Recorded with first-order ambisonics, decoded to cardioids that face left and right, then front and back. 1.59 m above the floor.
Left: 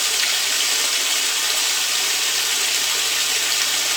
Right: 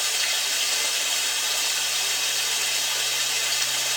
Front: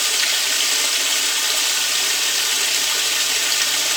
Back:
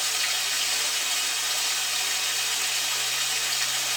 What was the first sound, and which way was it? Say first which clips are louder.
Running water: left 4 dB, front 7 dB; 40° left.